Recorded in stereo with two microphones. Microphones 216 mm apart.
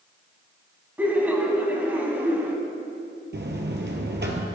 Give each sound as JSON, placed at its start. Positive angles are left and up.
{"t": 1.0, "sound": "laughter", "side_deg": -10, "distance_m": 1.0}
{"t": 3.3, "sound": "a buzzer", "side_deg": -55, "distance_m": 1.2}